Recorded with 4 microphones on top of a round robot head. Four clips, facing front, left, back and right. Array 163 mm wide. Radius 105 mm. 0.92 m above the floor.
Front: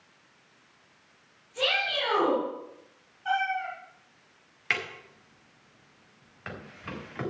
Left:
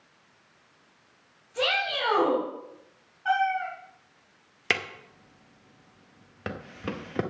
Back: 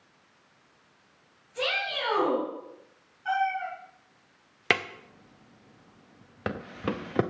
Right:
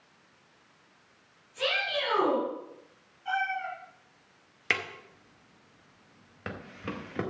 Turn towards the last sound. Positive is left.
turn(degrees=170)